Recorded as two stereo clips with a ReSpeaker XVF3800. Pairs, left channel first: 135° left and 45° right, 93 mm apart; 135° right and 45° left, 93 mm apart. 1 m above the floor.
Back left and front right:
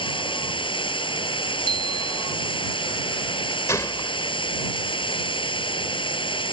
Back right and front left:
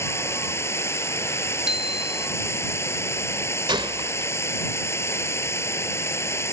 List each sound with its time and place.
0.0 s running water: 160° left
1.7 s a bicycle bell: 130° left
3.7 s a gunshot: 75° left